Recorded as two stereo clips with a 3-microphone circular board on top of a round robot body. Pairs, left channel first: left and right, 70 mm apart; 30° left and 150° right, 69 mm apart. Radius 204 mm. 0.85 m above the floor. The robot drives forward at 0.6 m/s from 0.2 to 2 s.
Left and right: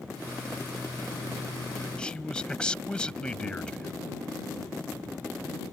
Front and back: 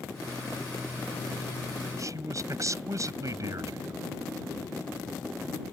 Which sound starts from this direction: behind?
A man speaking, at 2.0 s.